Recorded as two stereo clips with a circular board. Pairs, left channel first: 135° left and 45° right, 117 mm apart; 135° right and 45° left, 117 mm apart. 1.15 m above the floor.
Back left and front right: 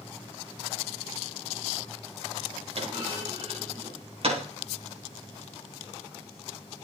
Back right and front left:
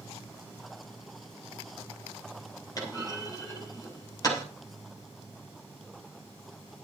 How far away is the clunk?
About 4 m.